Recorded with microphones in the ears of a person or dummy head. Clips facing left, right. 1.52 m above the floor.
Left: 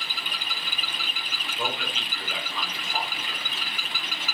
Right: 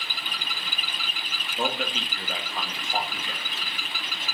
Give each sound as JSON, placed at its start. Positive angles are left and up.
{"t": 1.6, "sound": "a man speaking", "side_deg": -40, "distance_m": 2.5}